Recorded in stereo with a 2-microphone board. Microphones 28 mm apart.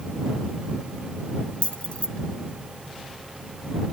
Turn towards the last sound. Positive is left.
turn(degrees=60)  # may be behind; listen again after turning